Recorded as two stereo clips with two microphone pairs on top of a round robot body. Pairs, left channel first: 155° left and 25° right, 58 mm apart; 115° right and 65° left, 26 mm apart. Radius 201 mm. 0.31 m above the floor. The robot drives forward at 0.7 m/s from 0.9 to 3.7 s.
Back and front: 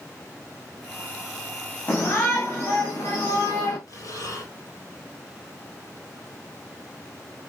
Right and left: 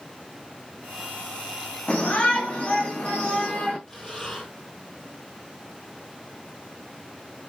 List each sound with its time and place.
1.9 s a shout: 150° right, 3.5 m; by 3.8 s 160° right, 4.5 m
3.9 s breathing: straight behind, 5.5 m